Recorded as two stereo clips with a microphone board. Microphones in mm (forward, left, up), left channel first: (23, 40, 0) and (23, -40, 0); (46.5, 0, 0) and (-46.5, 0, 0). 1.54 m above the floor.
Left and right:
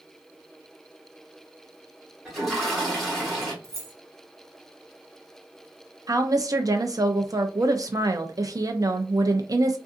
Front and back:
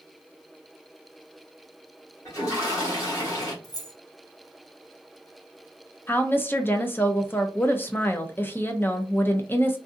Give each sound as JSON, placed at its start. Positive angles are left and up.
{"t": 2.2, "sound": "a toilet flushing", "azimuth_deg": 0, "distance_m": 1.4}
{"t": 3.6, "sound": "keys jangling", "azimuth_deg": -40, "distance_m": 0.8}
{"t": 6.1, "sound": "a woman speaking", "azimuth_deg": -60, "distance_m": 0.5}